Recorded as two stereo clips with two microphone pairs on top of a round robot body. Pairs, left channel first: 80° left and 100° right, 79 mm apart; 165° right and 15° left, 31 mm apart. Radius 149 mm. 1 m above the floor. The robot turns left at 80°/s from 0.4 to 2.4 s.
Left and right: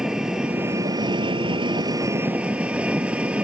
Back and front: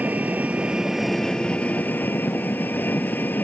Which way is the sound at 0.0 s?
20° right.